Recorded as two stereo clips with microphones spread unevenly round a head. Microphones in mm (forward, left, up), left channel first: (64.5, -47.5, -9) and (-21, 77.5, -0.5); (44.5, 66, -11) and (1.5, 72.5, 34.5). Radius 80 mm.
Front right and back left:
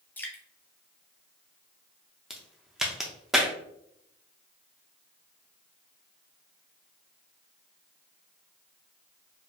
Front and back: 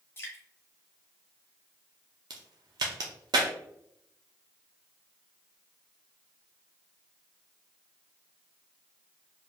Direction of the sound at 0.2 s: 130° right.